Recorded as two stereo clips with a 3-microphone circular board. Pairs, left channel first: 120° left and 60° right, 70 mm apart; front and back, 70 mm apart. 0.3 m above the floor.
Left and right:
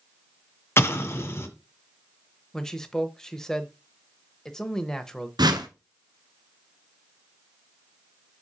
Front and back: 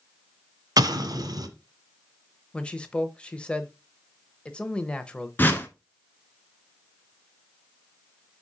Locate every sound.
0.8 s an explosion: 170° left, 1.2 m
2.5 s a man speaking: 50° left, 0.9 m
5.4 s a whoosh: 60° right, 1.1 m